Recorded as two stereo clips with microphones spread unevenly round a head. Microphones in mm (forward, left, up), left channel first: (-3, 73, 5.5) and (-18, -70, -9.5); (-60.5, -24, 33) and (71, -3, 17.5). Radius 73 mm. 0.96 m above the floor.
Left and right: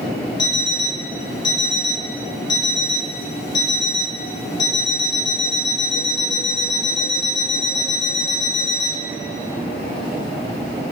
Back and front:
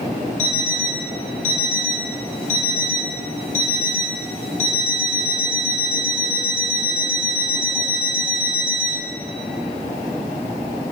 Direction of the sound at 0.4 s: 145° left.